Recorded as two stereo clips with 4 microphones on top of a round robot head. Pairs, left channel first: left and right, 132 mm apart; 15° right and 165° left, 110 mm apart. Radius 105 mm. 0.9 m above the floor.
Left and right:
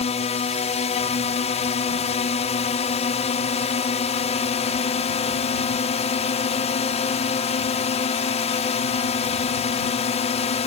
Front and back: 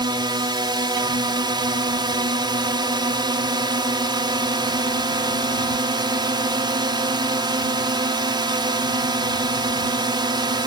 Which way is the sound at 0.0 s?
120° left.